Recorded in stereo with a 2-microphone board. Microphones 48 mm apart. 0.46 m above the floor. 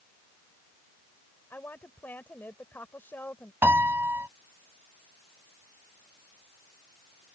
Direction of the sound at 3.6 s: 55° right (ahead or behind).